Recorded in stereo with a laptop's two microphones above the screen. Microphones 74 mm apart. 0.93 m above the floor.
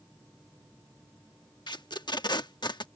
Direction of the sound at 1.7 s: 75° left (ahead or behind).